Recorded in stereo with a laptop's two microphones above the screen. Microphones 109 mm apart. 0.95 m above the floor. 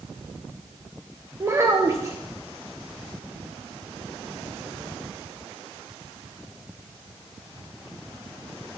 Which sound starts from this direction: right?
A child speaking, at 1.4 s.